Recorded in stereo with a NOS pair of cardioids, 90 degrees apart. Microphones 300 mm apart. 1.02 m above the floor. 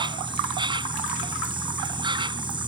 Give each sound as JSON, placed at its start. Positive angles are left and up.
{"t": 0.0, "sound": "an insect", "azimuth_deg": -15}